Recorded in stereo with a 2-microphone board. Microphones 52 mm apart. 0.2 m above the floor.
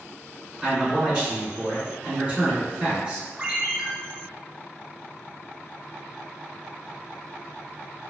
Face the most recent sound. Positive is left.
turn(degrees=-25)  # may be behind; listen again after turning